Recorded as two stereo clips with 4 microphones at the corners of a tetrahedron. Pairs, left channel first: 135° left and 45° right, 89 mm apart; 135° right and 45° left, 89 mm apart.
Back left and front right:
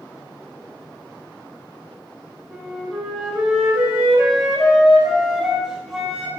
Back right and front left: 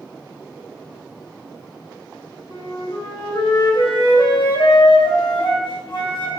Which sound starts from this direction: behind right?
A flute, at 2.5 s.